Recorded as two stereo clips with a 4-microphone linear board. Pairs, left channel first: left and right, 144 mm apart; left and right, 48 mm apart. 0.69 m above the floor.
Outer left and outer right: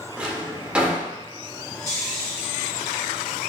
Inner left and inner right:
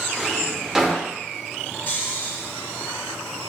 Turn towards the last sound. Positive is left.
turn(degrees=45)  # may be behind; listen again after turning